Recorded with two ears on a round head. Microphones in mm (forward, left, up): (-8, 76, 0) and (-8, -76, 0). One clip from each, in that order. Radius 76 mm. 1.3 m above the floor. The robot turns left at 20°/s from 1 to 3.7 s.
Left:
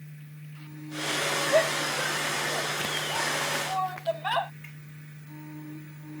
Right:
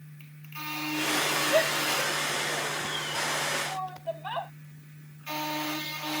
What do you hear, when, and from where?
1.5 s a shout: 5° left (ahead or behind); by 4.5 s 45° left (ahead or behind)